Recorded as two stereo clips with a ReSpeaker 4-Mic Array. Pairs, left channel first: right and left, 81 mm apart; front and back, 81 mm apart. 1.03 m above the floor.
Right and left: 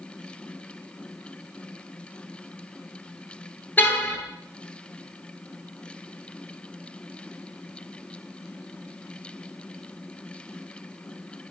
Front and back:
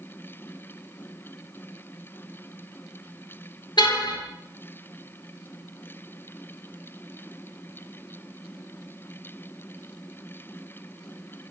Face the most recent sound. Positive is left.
turn(degrees=-25)